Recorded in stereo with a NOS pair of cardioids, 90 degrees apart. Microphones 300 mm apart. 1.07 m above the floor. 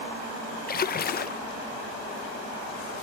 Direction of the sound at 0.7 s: 30° left.